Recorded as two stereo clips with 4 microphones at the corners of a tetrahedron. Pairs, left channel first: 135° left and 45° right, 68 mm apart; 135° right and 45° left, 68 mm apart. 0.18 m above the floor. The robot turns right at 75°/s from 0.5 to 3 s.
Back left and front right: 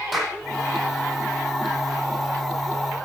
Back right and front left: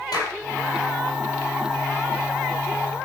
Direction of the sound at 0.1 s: 135° right.